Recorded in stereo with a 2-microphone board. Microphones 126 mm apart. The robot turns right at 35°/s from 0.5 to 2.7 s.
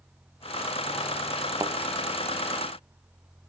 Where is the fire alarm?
I don't hear a fire alarm.